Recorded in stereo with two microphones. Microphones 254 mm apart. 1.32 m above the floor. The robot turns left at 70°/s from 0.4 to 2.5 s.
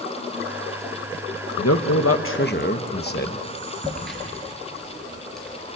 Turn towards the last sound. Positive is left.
turn(degrees=0)  # may be behind; listen again after turning